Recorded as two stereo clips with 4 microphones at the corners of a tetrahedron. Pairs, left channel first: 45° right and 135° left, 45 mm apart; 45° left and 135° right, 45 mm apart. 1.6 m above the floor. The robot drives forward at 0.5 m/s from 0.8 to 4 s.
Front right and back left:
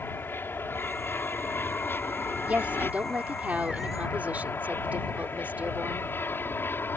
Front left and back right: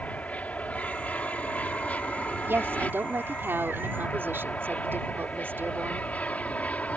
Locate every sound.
0.0 s an aircraft: 10° right
2.5 s a woman speaking: 170° right